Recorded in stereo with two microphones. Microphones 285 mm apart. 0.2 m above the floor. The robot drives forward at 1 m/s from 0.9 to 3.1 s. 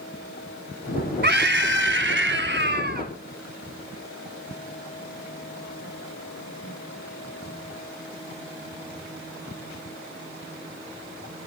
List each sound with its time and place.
1.2 s a scream: 35° right (ahead or behind), 1.9 m